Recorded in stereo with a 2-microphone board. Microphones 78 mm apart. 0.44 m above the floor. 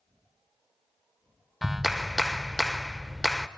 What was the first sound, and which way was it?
A clap, 5° right (ahead or behind).